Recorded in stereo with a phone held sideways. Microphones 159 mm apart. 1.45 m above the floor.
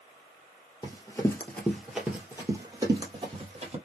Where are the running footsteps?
25° left (ahead or behind), 1.5 m; by 3.8 s 35° right (ahead or behind), 2 m.